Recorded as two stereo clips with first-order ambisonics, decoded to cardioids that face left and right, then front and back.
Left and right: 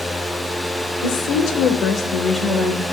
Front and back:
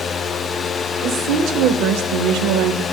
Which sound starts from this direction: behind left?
A woman speaking, at 1.0 s.